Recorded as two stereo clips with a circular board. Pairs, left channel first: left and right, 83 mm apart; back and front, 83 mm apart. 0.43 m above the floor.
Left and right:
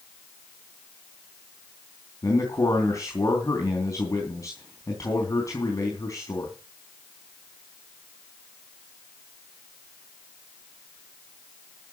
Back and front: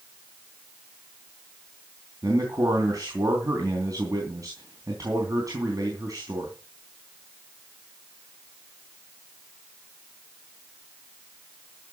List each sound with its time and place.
2.2 s a man speaking: 40° left, 3.5 m